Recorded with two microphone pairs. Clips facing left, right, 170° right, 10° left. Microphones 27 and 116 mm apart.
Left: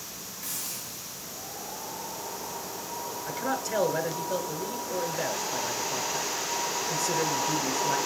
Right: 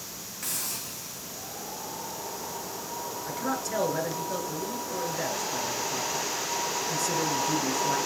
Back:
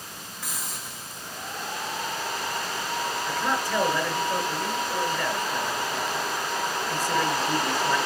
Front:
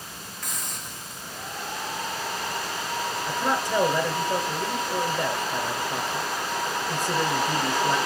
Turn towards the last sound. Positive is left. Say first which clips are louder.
# left 1 dB, front 3 dB
turn(degrees=20)